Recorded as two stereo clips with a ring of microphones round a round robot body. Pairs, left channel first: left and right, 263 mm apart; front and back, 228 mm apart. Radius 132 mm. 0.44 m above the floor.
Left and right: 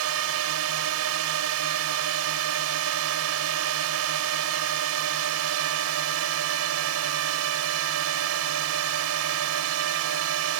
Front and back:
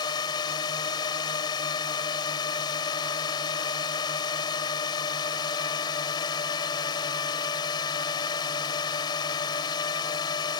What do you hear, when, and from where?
0.0 s a drone: 70° right